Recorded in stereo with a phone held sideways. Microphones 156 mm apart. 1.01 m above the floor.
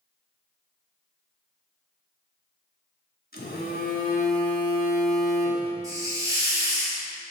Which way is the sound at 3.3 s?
75° left (ahead or behind).